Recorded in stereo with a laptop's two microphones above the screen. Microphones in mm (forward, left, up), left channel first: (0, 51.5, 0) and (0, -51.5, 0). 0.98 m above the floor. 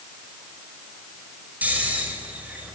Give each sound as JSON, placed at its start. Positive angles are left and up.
{"t": 1.6, "sound": "snoring", "side_deg": -15, "distance_m": 5.5}